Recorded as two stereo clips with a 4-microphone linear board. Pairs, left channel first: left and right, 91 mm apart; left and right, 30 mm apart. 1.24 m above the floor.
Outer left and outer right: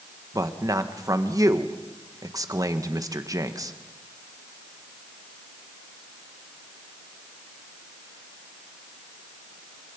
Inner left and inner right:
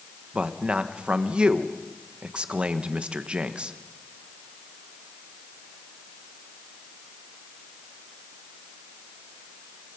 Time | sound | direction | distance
0.3 | a man speaking | 40° right (ahead or behind) | 1.5 m